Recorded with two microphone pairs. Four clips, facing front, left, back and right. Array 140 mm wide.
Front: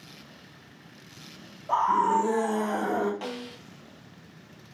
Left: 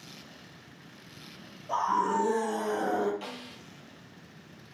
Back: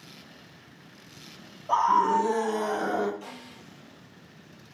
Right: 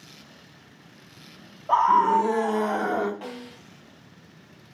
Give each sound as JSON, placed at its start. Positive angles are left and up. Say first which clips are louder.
{"t": 1.7, "sound": "a scream", "louder": "right 9 dB, back 1 dB", "azimuth_deg": -105, "distance_m": 3.5}
{"t": 3.2, "sound": "a snare drum", "louder": "right 4 dB, front 7 dB", "azimuth_deg": -25, "distance_m": 3.0}